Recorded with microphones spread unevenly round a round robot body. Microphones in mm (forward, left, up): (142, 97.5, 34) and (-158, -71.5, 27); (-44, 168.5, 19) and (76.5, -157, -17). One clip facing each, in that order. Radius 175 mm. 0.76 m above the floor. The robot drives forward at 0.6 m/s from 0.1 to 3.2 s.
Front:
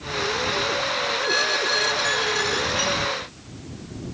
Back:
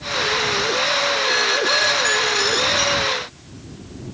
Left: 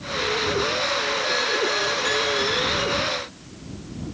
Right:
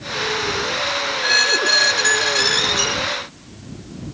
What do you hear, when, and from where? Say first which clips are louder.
1.2 s a squeak: back 4 dB, even; 60° right; by 3.2 s 95° right